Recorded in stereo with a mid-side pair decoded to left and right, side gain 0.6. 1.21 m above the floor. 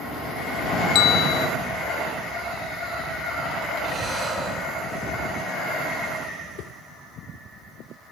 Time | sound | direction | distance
0.9 | a bell | 70° left | 1.0 m
3.8 | breathing | 10° right | 6 m
6.6 | a whoosh | 60° left | 0.9 m